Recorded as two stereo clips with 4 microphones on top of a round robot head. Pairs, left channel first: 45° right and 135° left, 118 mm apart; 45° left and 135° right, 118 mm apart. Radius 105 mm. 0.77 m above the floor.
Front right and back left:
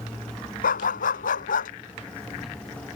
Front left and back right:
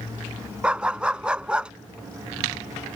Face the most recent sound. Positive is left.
turn(degrees=-55)